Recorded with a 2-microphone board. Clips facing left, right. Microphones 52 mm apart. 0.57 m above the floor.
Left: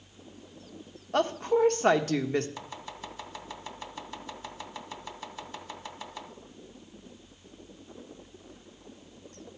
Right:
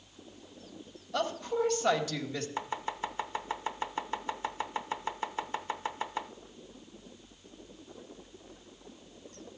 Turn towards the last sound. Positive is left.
turn(degrees=-30)  # may be behind; listen again after turning